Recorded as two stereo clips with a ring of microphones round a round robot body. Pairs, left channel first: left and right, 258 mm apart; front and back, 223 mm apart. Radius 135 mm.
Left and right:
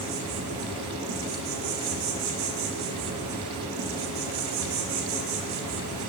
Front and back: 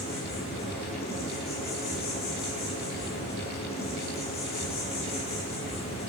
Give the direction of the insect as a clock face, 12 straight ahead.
2 o'clock.